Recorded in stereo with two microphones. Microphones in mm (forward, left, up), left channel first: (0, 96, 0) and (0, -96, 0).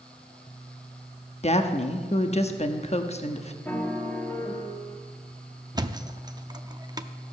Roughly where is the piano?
Centre.